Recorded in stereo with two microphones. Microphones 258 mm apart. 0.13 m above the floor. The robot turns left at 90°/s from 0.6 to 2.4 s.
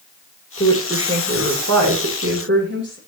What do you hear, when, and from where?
0.6 s a woman speaking: 25° left, 8.5 m; by 3.0 s 140° right, 8.5 m